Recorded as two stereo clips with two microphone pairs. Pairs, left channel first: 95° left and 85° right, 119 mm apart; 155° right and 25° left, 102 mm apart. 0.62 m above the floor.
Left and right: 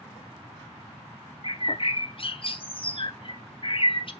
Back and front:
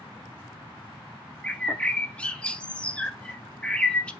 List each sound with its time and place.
1.4 s a bird: 125° left, 0.7 m